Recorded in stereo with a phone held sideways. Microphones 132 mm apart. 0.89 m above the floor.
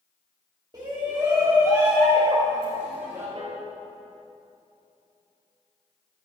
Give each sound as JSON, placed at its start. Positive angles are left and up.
{"t": 0.7, "sound": "a shout", "side_deg": -35, "distance_m": 2.0}
{"t": 3.4, "sound": "a piano", "side_deg": -50, "distance_m": 3.0}